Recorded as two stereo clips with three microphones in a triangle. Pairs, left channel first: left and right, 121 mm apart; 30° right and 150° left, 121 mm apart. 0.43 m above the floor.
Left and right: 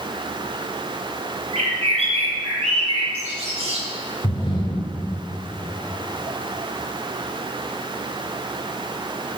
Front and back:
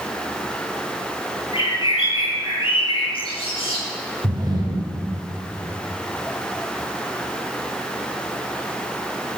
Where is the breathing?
115° left, 1.3 m.